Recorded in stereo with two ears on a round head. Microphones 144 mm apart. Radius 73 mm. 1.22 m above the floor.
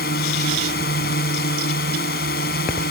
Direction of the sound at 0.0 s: 60° left (ahead or behind).